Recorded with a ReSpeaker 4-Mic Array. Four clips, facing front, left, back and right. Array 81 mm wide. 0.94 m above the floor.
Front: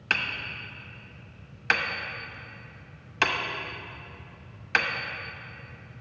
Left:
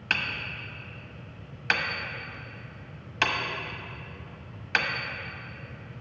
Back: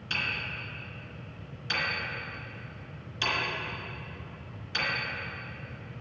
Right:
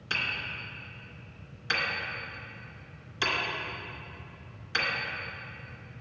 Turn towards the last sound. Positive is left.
turn(degrees=40)